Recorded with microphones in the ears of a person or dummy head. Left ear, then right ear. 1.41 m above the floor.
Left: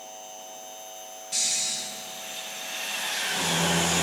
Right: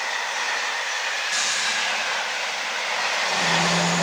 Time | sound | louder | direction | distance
1.3 | snoring | right 2 dB | 15° right (ahead or behind) | 1.1 m